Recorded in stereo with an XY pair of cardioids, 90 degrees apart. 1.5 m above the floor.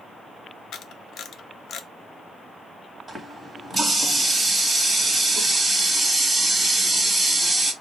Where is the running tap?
20° right, 1.4 m.